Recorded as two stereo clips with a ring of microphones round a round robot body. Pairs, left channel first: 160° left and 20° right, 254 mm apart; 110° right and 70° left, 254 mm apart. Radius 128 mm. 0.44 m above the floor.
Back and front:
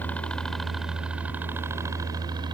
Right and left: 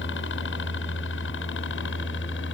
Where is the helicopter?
120° right; by 2.5 s 90° right.